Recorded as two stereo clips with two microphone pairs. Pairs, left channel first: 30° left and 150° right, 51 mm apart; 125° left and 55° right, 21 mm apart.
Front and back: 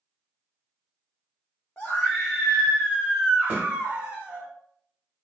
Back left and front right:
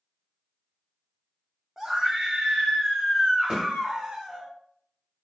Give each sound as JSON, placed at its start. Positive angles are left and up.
{"t": 1.8, "sound": "a scream", "azimuth_deg": -15, "distance_m": 0.8}
{"t": 3.5, "sound": "a snare drum", "azimuth_deg": -85, "distance_m": 1.7}